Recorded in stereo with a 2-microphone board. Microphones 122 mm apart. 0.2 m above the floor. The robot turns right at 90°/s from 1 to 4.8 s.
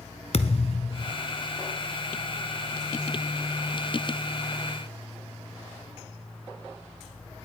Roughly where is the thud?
Left.